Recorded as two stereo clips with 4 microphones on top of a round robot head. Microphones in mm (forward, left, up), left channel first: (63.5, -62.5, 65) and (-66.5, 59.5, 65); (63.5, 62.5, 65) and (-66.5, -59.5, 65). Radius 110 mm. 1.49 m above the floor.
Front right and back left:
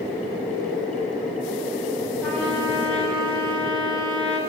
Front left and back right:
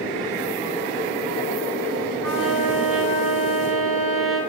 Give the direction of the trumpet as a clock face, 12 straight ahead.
4 o'clock.